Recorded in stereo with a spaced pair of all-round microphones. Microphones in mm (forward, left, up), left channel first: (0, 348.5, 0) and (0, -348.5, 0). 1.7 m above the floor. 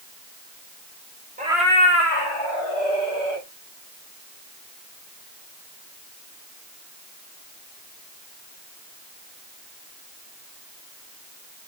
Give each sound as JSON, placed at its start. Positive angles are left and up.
{"t": 1.4, "sound": "a cat meowing", "side_deg": -10, "distance_m": 1.2}